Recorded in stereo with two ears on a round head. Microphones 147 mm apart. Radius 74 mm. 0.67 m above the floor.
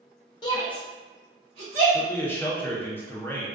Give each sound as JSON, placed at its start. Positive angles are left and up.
{"t": 0.4, "sound": "a shout", "side_deg": 30, "distance_m": 0.6}
{"t": 1.9, "sound": "a man speaking", "side_deg": 15, "distance_m": 0.6}